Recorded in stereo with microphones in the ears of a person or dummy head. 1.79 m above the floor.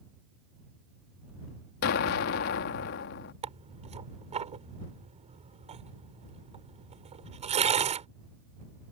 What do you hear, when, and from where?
1.8 s an explosion: 50° left (ahead or behind)
3.4 s tearing paper: 25° right (ahead or behind)